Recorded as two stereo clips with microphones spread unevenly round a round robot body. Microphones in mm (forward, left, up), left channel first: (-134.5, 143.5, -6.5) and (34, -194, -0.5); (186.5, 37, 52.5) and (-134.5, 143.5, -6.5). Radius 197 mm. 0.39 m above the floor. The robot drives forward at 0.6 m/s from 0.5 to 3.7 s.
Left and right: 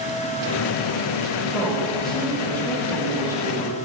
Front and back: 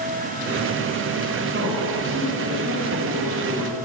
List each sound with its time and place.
1.5 s a man speaking: 150° right, 2 m; by 3.8 s 165° right, 3 m